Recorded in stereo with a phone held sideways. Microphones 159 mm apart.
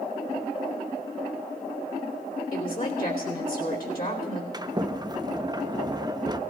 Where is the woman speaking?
65° left (ahead or behind), 3 m.